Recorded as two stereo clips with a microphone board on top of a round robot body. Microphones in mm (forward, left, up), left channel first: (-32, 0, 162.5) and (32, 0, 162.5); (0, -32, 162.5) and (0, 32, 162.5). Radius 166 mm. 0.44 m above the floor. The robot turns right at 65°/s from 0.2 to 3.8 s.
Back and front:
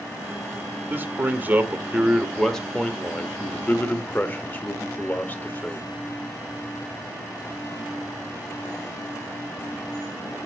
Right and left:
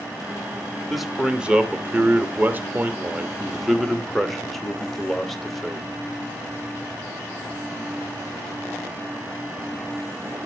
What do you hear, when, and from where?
0.9 s a man speaking: 5° right, 1.3 m; by 5.9 s 175° right, 1.3 m